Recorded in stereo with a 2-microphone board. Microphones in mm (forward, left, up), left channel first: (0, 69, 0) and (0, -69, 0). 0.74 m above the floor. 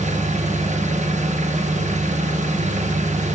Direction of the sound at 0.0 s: 60° right (ahead or behind).